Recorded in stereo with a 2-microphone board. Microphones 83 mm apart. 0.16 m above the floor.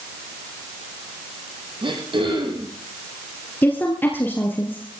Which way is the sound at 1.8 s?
80° right.